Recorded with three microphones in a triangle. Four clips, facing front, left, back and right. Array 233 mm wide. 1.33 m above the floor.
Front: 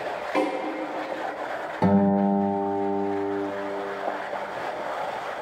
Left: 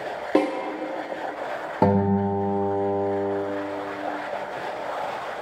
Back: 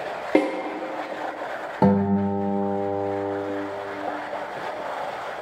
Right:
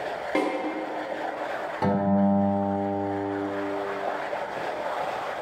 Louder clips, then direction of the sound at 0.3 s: Left 5 dB, back 5 dB; 150° left.